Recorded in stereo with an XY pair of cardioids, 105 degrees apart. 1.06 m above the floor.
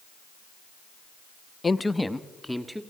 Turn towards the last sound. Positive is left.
turn(degrees=-5)